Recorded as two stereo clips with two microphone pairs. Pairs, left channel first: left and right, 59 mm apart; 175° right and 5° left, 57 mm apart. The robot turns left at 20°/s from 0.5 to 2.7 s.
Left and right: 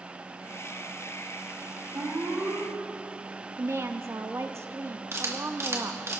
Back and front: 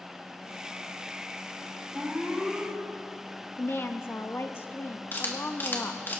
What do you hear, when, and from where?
1.9 s an alarm: 75° right, 4 m; by 2.7 s 90° right, 4 m
3.6 s a woman speaking: 130° right, 0.9 m
5.1 s a camera shutter: 125° right, 2 m